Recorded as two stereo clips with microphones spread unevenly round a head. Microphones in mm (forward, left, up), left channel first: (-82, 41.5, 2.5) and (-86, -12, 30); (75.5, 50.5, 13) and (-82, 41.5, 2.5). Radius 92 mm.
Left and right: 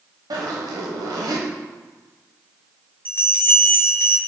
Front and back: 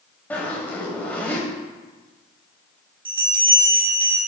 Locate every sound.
0.3 s a zipper: 80° right, 1.1 m
3.0 s a bell: 125° left, 1.8 m